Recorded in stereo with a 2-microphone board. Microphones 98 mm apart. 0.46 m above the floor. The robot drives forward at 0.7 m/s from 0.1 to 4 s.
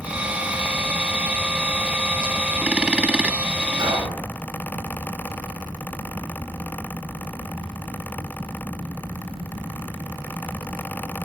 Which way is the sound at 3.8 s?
50° right (ahead or behind).